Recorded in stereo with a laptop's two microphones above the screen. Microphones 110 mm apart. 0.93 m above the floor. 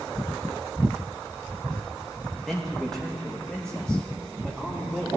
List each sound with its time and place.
2.5 s a man speaking: centre (ahead or behind), 1.2 m; by 5.1 s 10° left (ahead or behind), 3 m